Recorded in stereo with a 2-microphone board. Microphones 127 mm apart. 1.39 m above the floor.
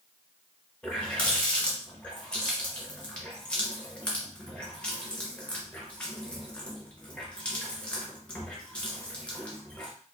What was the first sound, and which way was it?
A running tap, 10° left (ahead or behind).